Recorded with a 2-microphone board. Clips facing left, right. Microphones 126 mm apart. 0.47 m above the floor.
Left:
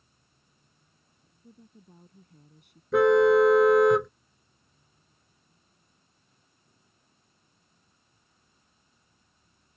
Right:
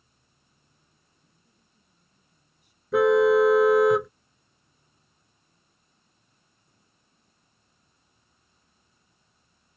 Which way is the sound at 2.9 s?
Centre (ahead or behind).